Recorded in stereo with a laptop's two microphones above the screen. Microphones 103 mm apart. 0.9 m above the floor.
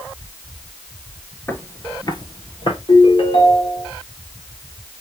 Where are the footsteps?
20° left (ahead or behind), 0.9 m; by 2.8 s 55° left (ahead or behind), 1.4 m.